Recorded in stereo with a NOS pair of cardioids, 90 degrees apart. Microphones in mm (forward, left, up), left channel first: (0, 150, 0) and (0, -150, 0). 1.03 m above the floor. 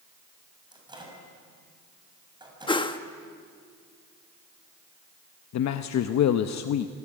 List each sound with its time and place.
0.7 s a microwave: 15° right, 6.5 m
2.7 s a whoosh: 15° left, 1.3 m
5.5 s a man speaking: 65° left, 0.9 m